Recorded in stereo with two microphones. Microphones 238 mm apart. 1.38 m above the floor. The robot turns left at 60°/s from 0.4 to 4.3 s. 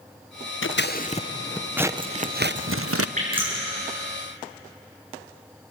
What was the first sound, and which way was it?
Scissors, 60° left.